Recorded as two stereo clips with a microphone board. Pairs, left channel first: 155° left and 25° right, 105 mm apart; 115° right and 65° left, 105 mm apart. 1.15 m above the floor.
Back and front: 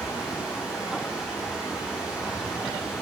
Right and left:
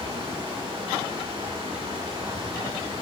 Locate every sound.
0.0 s running water: 60° left, 5.5 m